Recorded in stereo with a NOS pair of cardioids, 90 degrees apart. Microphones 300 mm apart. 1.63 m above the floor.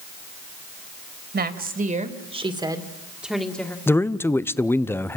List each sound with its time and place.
1.3 s a woman speaking: 30° right, 3 m; by 3.8 s 5° left, 2.5 m
3.9 s a man speaking: 5° left, 0.8 m